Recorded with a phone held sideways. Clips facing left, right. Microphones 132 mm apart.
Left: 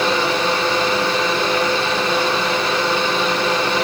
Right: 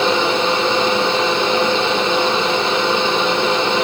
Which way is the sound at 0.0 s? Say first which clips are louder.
Right 2 dB; 25° right (ahead or behind).